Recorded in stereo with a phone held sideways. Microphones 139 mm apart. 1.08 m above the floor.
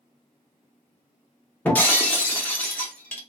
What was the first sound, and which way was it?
Breaking glass, 15° left (ahead or behind).